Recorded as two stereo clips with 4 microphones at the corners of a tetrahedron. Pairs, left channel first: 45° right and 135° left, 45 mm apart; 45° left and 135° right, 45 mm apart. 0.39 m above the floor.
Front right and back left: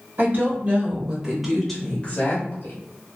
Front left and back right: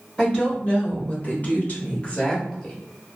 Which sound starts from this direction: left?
A woman speaking, at 0.2 s.